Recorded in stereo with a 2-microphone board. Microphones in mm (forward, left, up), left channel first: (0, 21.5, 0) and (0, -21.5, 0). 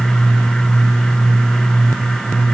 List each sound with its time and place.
Only background noise.